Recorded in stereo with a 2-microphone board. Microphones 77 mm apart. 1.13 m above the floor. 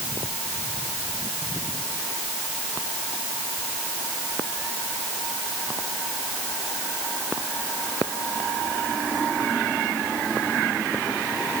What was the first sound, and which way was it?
Only background noise.